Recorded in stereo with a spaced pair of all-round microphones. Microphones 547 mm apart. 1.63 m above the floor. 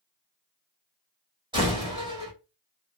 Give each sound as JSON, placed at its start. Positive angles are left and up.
{"t": 1.5, "sound": "a door slam", "side_deg": -10, "distance_m": 2.0}